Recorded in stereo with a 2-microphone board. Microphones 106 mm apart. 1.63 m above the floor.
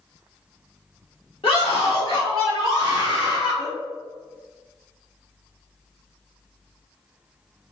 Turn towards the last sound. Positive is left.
turn(degrees=60)  # may be behind; listen again after turning